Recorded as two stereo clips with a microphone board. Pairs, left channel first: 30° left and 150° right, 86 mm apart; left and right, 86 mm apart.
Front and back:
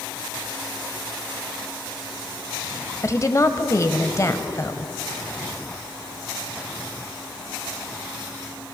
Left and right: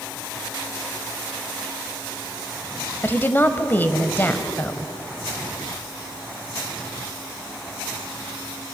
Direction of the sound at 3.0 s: 40° left.